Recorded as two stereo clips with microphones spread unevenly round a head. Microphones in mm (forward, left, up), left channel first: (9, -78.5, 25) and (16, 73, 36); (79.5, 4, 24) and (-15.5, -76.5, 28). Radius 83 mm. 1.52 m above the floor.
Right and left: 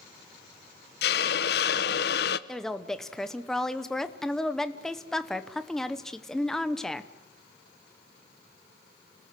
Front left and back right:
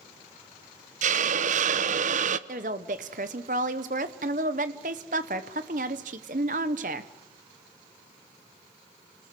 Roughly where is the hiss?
Behind right.